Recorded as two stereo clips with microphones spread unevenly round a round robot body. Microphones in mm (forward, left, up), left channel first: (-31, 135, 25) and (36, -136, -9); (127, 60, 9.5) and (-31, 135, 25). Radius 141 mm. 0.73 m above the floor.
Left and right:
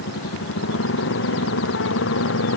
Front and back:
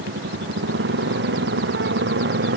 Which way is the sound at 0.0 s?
150° left.